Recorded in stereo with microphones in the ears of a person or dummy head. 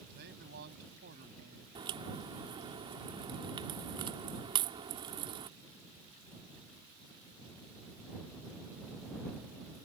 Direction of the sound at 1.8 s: 30° right (ahead or behind).